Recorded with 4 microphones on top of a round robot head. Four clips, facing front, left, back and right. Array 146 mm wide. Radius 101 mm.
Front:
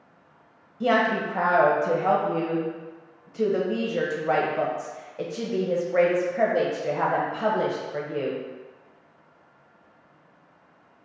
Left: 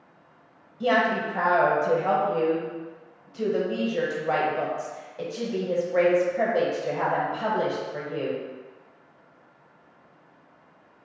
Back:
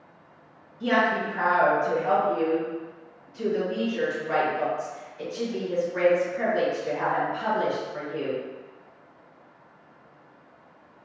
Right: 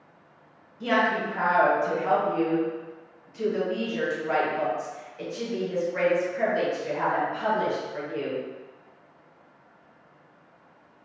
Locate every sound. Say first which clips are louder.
0.8 s a woman speaking: left 2 dB, front 1 dB; 25° left, 1.2 m